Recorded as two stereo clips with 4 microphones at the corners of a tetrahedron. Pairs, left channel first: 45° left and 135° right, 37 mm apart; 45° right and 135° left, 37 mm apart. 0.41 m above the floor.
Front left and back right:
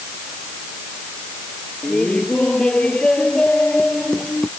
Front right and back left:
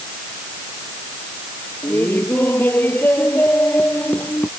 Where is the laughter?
20° right.